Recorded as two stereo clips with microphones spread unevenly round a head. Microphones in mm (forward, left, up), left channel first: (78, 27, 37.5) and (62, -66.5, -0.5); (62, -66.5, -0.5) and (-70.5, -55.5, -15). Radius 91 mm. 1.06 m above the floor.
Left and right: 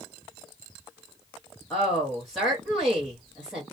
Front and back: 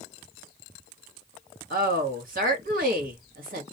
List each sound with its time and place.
1.7 s a woman speaking: 175° left, 1.3 m